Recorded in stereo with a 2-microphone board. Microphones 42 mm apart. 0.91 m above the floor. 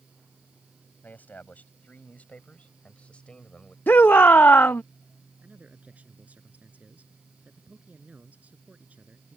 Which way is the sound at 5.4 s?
35° right (ahead or behind).